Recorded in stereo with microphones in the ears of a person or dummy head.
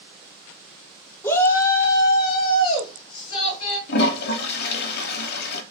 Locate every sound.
1.2 s a shout: 15° left (ahead or behind), 0.9 m; by 3.8 s 40° left (ahead or behind), 2.5 m
3.9 s a toilet flushing: 60° left (ahead or behind), 0.9 m